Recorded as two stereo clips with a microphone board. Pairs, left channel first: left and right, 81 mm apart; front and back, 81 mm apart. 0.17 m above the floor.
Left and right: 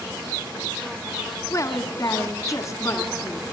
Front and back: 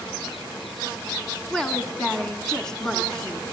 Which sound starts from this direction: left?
A woman speaking, at 1.5 s.